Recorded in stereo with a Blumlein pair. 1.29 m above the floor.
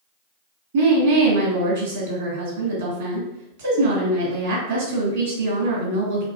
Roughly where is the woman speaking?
Ahead right.